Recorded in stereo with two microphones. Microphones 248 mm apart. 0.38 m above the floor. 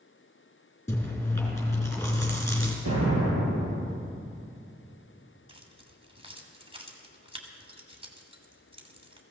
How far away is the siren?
I don't hear a siren.